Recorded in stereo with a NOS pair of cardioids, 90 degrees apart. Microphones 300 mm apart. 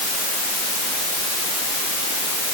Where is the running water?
No running water in this recording.